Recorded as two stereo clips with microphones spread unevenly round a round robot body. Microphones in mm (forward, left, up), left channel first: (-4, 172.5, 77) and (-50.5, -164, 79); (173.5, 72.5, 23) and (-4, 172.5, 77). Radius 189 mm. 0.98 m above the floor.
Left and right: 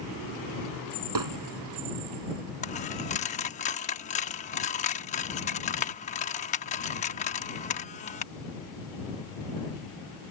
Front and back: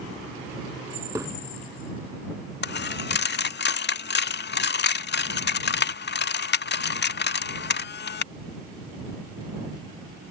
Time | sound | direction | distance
1.1 | hammering | 130° right | ?
2.6 | a dropped coin | 15° left | ?